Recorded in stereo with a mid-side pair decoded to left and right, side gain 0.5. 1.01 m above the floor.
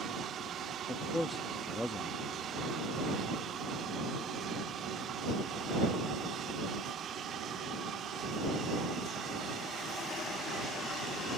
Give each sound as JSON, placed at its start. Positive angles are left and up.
{"t": 0.9, "sound": "a man speaking", "azimuth_deg": 10}